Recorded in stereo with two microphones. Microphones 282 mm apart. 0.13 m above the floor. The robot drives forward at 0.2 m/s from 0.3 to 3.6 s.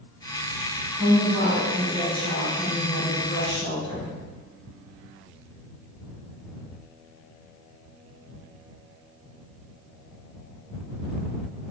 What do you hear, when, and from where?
0.9 s a woman speaking: 20° right (ahead or behind), 1.6 m